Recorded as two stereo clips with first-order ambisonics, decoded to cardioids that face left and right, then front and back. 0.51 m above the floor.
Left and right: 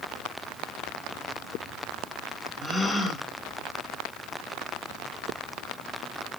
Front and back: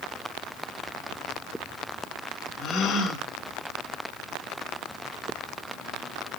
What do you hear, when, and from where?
2.6 s a gasp: 15° left, 1.2 m